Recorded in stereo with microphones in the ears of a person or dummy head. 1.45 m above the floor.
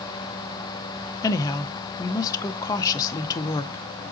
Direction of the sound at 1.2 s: 20° left (ahead or behind).